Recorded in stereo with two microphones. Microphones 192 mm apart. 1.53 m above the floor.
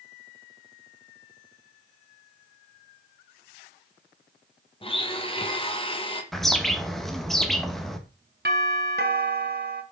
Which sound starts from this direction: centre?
A bird, at 6.3 s.